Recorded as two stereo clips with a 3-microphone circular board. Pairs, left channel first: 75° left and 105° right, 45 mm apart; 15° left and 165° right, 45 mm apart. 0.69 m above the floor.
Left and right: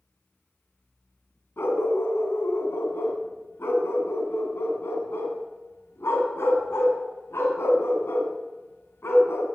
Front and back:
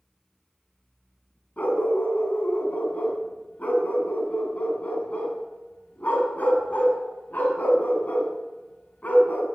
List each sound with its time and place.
1.6 s a dog barking: 70° left, 2.5 m